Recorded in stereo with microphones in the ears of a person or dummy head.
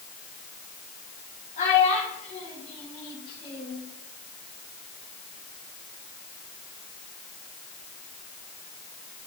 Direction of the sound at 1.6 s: 40° left (ahead or behind).